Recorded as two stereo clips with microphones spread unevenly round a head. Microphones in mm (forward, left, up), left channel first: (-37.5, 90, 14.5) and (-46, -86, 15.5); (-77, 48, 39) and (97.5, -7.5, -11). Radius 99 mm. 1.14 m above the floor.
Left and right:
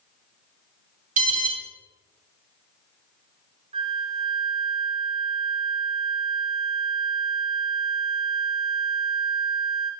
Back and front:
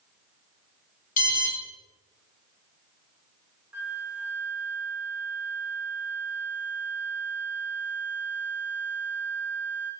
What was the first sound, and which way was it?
An alarm, 140° right.